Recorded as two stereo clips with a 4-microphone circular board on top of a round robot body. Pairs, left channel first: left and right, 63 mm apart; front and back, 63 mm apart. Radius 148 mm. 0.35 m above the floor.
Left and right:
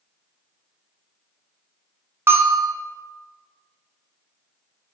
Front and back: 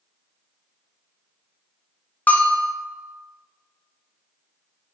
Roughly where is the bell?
Ahead right.